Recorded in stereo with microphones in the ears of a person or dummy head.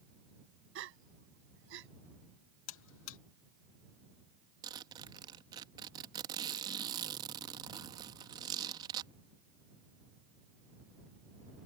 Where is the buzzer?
75° left (ahead or behind).